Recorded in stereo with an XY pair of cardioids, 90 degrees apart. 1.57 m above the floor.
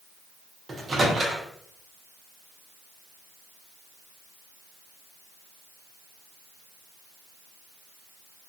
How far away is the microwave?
About 0.9 m.